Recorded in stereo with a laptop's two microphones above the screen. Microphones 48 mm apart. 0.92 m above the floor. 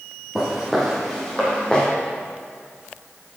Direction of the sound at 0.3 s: Centre (ahead or behind).